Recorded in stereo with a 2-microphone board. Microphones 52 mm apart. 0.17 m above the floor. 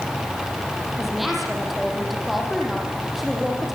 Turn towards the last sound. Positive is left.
turn(degrees=0)  # may be behind; listen again after turning